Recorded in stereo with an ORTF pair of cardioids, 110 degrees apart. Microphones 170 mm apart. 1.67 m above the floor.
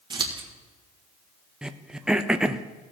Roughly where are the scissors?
Ahead right.